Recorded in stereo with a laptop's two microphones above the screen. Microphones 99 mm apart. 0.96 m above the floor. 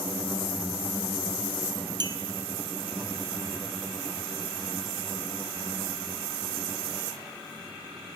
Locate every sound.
2.0 s a clink: 45° right (ahead or behind), 0.7 m